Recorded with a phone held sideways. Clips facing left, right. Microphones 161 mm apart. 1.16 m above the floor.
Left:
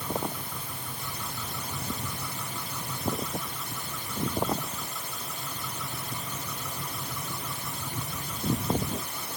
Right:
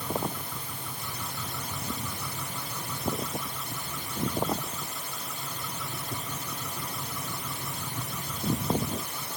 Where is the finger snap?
I don't hear a finger snap.